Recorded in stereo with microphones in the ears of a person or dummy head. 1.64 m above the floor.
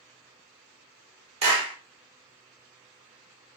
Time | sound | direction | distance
1.4 | a clap | 35° right (ahead or behind) | 1.0 m